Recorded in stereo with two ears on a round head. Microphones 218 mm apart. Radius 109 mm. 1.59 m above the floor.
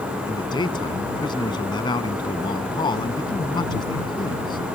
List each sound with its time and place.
0.3 s a man speaking: 20° left (ahead or behind)